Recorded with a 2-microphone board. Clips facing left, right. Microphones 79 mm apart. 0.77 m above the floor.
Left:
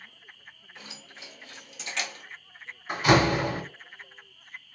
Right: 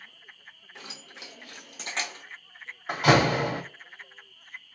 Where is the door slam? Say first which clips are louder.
Even; 75° right (ahead or behind), 1.5 m.